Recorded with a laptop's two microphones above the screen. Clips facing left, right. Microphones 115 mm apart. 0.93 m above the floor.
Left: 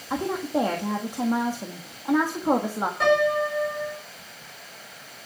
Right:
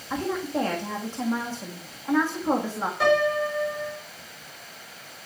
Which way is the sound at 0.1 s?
15° left (ahead or behind).